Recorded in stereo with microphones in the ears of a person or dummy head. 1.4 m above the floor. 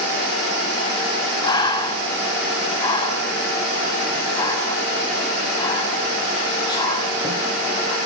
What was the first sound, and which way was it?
Breathing, 25° left (ahead or behind).